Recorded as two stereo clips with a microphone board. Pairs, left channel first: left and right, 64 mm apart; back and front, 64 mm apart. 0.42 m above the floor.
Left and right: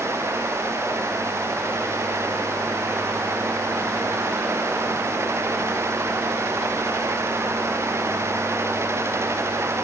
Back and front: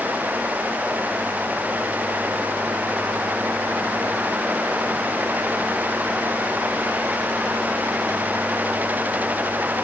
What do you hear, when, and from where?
Only background noise.